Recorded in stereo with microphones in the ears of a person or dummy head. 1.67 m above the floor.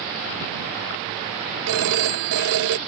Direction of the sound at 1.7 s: 75° right (ahead or behind).